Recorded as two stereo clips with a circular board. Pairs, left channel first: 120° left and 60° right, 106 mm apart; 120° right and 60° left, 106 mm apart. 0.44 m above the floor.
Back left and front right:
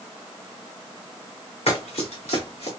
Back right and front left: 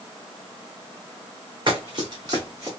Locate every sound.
1.7 s running footsteps: 100° left, 2.5 m; by 2.7 s 115° left, 2.5 m